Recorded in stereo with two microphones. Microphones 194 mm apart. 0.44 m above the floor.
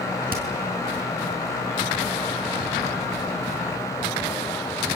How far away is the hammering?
About 6 m.